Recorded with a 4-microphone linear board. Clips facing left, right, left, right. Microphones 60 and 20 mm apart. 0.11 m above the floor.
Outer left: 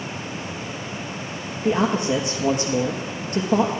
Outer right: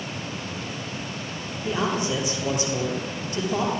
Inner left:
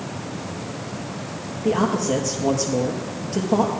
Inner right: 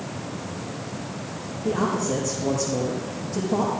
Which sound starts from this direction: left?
A man speaking, at 1.6 s.